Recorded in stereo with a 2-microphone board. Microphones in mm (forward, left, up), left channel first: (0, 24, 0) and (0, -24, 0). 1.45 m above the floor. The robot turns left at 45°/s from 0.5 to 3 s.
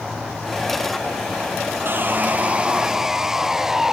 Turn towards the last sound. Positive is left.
turn(degrees=-170)